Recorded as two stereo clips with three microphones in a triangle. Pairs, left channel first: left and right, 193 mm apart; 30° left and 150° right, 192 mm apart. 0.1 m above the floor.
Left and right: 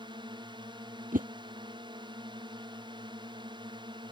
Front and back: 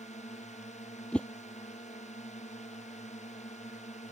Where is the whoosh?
55° right.